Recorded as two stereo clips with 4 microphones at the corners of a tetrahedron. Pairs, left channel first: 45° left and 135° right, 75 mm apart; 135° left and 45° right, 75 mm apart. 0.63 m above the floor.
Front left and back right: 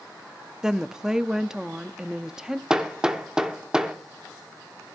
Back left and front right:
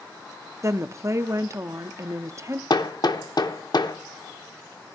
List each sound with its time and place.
0.6 s a woman speaking: 55° right, 0.6 m
2.7 s hammering: 145° left, 1.1 m